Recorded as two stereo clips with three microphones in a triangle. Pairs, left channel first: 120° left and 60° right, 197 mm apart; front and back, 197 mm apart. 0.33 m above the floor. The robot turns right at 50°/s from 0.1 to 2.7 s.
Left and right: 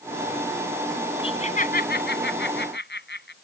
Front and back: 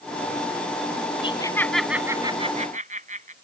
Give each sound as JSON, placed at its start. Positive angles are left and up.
{"t": 1.2, "sound": "laughter", "azimuth_deg": 60}